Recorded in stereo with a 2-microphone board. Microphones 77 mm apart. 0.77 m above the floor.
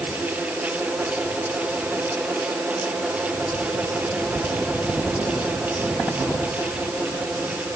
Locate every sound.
Only background noise.